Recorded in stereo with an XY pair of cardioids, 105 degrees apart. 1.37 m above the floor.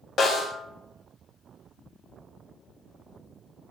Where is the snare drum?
55° left, 0.9 m.